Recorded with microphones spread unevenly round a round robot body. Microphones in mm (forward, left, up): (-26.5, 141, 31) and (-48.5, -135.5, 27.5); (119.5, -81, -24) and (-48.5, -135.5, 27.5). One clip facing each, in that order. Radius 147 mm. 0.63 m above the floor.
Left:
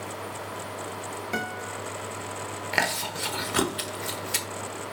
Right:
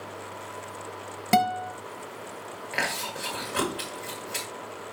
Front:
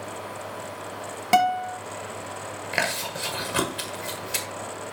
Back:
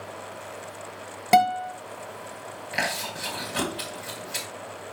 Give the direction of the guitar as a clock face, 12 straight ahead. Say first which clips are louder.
Right 10 dB, back 1 dB; 3 o'clock.